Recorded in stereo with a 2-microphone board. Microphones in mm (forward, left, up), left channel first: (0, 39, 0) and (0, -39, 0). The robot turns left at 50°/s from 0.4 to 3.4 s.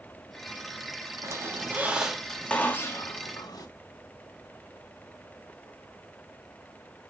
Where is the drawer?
No drawer in this recording.